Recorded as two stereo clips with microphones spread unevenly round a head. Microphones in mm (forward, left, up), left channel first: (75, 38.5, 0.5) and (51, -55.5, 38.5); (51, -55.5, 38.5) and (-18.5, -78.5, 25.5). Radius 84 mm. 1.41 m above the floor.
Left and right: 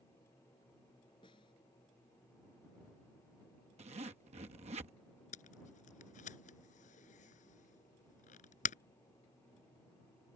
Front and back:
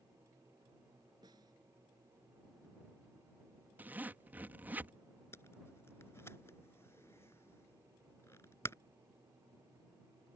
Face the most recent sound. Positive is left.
turn(degrees=90)